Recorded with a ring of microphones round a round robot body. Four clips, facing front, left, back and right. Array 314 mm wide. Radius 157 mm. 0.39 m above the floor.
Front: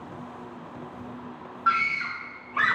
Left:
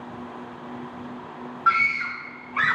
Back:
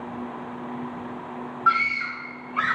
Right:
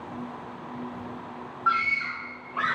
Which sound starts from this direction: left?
A scream, at 1.7 s.